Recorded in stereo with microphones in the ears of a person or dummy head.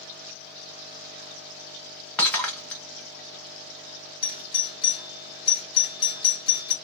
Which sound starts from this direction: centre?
Breaking glass, at 2.2 s.